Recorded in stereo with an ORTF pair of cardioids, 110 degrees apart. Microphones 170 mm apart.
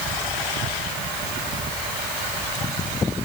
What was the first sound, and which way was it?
Only background noise.